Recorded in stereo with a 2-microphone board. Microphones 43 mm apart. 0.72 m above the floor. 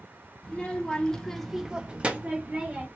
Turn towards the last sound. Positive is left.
turn(degrees=-30)  # may be behind; listen again after turning